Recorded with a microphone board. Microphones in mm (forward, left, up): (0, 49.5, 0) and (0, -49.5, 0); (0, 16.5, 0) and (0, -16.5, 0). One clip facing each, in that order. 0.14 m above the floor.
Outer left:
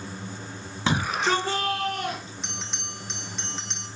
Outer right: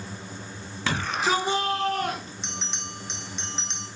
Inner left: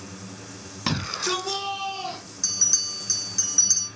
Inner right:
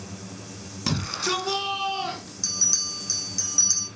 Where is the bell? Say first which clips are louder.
Outer right 1 dB, inner left 1 dB; centre (ahead or behind), 6.5 m.